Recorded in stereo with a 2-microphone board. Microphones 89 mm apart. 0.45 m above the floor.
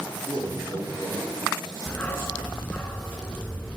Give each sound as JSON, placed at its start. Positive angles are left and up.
{"t": 0.2, "sound": "a man speaking", "side_deg": -65, "distance_m": 8.5}
{"t": 1.9, "sound": "a dog barking", "side_deg": 20, "distance_m": 1.9}